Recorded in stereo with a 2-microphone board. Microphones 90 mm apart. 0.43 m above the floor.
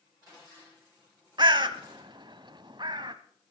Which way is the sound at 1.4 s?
55° right (ahead or behind).